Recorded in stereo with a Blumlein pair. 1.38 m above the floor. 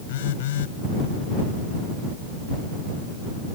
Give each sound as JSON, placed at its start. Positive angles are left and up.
{"t": 0.1, "sound": "a phone buzzing", "azimuth_deg": 55}